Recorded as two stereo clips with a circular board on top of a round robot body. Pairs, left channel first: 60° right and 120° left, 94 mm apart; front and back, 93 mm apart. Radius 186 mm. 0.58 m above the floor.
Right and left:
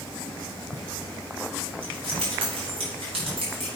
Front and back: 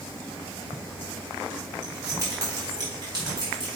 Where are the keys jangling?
120° left, 4.5 m; by 3.7 s 140° left, 4.5 m.